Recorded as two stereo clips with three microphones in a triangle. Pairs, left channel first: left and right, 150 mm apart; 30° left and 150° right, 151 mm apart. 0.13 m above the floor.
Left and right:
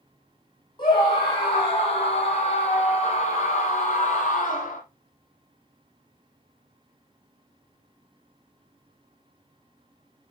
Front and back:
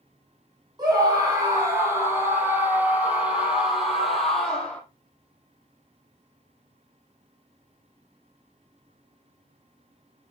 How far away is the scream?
About 5.5 m.